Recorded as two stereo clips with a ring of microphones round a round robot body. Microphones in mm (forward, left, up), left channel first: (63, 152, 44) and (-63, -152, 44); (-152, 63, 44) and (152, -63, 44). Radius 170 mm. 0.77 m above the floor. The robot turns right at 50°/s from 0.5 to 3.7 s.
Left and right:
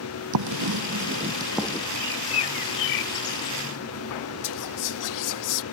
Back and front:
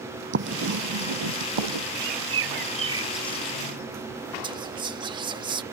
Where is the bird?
5° left; by 3.7 s 90° left.